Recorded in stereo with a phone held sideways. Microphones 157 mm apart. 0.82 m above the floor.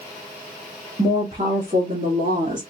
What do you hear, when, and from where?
1.0 s a woman speaking: 50° right (ahead or behind), 1.4 m; by 2.6 s 70° right (ahead or behind), 2 m